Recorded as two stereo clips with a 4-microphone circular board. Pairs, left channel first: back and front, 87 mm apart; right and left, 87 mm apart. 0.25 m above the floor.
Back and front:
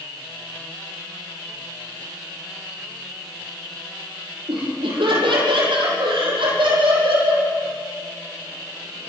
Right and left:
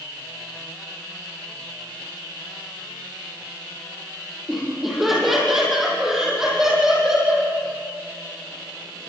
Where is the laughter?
Straight ahead, 8 m; by 7.5 s 10° left, 10 m.